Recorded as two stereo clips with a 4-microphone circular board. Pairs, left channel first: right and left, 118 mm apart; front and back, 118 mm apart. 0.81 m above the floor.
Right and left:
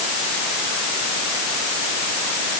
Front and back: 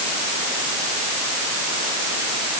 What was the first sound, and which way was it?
Only background noise.